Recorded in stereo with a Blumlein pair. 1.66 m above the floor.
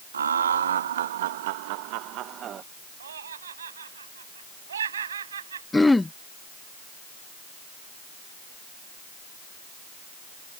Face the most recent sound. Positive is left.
turn(degrees=5)